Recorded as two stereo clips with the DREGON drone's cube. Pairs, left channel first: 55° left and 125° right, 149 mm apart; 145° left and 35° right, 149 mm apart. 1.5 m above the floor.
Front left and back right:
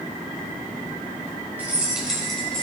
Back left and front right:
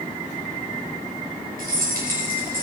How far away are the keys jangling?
About 4.5 m.